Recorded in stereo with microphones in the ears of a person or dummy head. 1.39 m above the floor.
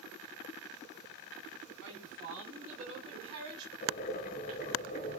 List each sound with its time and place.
1.8 s a woman speaking: 60° right (ahead or behind), 2 m; by 3.7 s 30° right (ahead or behind), 3 m
3.8 s boiling: 40° left (ahead or behind), 1.4 m